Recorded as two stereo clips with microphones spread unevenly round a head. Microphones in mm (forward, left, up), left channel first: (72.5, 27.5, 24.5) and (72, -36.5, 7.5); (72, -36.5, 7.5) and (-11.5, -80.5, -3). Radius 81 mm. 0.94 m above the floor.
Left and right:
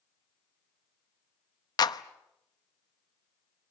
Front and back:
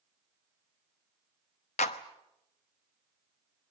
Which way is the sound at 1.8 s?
65° left.